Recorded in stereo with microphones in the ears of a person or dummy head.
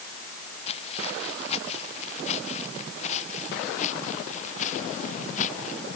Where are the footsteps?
35° left (ahead or behind); by 5.8 s 45° left (ahead or behind).